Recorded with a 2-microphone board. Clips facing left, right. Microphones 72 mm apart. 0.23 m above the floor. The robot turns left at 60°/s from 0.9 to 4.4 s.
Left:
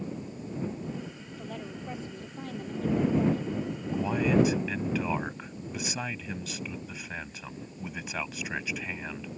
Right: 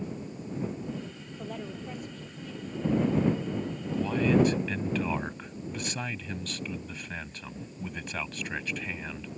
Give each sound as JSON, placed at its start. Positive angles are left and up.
{"t": 1.4, "sound": "a woman speaking", "azimuth_deg": -170}
{"t": 3.9, "sound": "a man speaking", "side_deg": 20}